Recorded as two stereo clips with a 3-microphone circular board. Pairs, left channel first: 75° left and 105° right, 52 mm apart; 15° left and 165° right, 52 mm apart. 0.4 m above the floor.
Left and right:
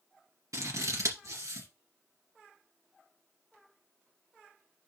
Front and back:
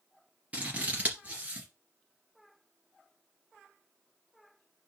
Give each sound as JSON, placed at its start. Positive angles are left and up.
{"t": 0.5, "sound": "scissors", "azimuth_deg": -105, "distance_m": 2.5}